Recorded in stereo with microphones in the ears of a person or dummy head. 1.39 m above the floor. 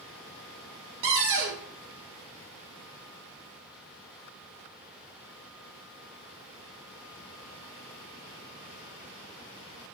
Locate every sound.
1.0 s a cupboard door: 70° right (ahead or behind), 0.8 m